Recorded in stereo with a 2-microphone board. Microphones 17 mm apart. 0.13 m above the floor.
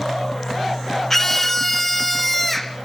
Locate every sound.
1.1 s a scream: 25° left (ahead or behind), 1.2 m; by 2.8 s 20° left (ahead or behind), 1.9 m